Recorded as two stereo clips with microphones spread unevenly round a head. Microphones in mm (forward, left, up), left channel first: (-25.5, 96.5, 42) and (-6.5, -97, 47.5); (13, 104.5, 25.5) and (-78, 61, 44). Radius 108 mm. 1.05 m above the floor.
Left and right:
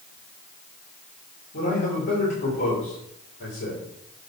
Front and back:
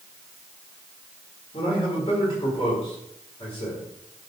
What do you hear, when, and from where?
1.5 s a man speaking: 65° left, 3 m